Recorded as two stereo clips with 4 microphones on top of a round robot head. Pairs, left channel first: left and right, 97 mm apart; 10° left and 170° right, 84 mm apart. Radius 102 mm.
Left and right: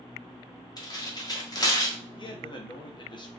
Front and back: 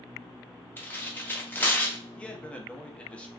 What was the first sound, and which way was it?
Tearing paper, 65° left.